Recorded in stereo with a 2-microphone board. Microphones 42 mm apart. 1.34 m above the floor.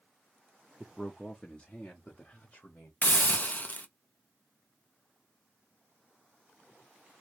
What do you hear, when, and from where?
0.8 s a man speaking: 10° left (ahead or behind), 0.6 m; by 2.9 s 45° left (ahead or behind), 1.5 m
3.0 s a hiss: 40° left (ahead or behind), 0.5 m